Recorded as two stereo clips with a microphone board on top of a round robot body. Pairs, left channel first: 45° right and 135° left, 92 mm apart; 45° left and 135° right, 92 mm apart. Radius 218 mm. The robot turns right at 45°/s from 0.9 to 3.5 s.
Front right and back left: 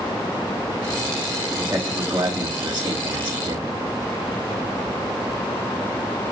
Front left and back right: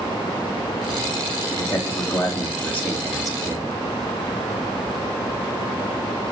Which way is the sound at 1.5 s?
55° left.